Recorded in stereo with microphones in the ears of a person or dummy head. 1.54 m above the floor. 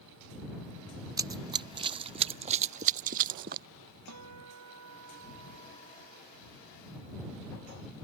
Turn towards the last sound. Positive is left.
turn(degrees=-85)